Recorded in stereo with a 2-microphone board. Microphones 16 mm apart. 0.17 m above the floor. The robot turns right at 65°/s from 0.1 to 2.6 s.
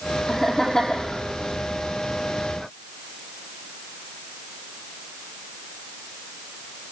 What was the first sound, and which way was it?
Laughter, straight ahead.